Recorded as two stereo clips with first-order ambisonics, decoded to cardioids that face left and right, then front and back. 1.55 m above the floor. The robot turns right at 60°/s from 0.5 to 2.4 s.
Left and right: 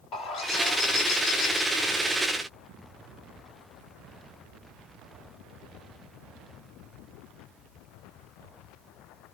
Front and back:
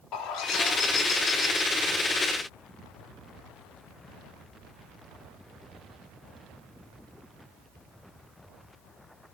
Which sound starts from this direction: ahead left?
A bird, at 0.1 s.